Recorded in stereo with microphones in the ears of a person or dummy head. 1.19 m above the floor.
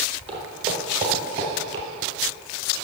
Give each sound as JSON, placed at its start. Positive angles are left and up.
{"t": 0.3, "sound": "footsteps", "side_deg": -20, "distance_m": 1.2}